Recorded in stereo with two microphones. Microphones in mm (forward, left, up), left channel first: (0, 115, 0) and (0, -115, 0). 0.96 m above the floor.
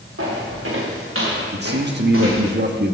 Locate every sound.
0.2 s footsteps: 75° right (ahead or behind), 4.5 m
1.5 s a man speaking: 50° right (ahead or behind), 1.2 m